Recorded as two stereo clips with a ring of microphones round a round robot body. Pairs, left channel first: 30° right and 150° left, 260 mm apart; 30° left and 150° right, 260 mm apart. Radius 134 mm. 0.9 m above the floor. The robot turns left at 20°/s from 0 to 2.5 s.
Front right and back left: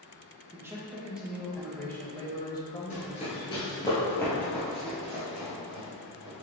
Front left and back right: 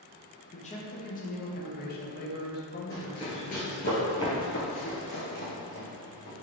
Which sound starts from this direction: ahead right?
Running footsteps, at 2.9 s.